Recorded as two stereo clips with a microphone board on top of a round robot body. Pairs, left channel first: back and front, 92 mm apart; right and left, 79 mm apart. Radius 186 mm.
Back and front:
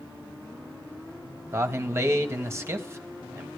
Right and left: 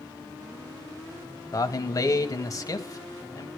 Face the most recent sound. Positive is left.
turn(degrees=-55)